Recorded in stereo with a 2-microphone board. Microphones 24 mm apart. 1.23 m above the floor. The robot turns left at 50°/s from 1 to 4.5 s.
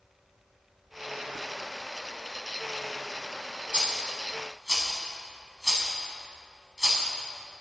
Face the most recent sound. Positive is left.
turn(degrees=-20)  # may be behind; listen again after turning